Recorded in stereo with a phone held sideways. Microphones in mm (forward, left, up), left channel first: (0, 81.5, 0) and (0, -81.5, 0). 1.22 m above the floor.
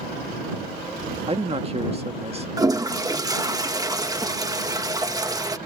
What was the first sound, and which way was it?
A man speaking, 35° right (ahead or behind).